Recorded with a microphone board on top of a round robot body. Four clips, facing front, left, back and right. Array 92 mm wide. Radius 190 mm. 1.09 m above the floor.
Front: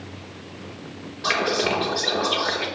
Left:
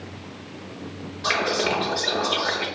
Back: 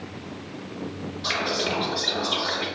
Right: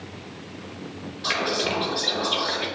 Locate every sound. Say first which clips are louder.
1.2 s whispering: left 3 dB, front 5 dB; 35° left, 0.8 m